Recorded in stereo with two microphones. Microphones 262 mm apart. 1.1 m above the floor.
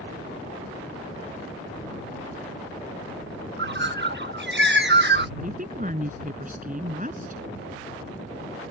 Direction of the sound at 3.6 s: 45° right (ahead or behind).